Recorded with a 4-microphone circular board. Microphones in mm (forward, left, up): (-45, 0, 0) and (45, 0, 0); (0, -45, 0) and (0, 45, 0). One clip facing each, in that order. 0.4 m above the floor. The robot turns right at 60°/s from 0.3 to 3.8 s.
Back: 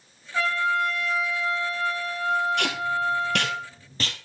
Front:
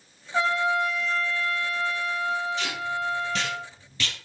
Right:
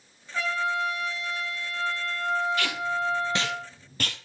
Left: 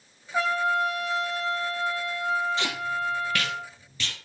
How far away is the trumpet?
About 1.0 m.